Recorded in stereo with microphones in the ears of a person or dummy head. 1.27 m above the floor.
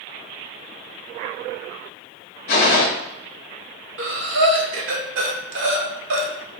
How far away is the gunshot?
About 0.6 m.